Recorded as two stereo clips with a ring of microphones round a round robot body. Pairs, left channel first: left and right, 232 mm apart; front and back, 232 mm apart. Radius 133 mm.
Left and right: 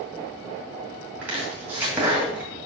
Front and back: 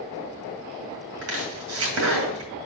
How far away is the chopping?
About 2 m.